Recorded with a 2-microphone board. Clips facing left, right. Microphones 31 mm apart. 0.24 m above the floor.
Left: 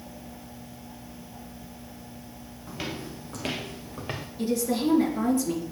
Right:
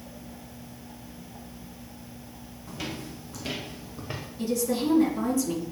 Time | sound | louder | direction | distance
2.7 | footsteps | left 1 dB | 15° left (ahead or behind) | 1.2 m
4.4 | a woman speaking | left 1 dB | 35° left (ahead or behind) | 3.5 m